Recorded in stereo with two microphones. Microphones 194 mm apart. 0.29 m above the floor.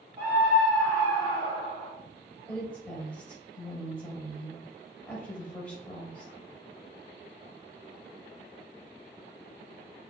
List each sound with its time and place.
0.2 s a scream: 15° right (ahead or behind), 0.9 m; by 1.9 s 40° left (ahead or behind), 1.1 m
2.5 s a woman speaking: 5° left (ahead or behind), 0.9 m